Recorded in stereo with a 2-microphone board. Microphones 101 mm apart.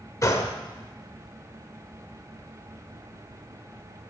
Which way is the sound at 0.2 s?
35° left (ahead or behind).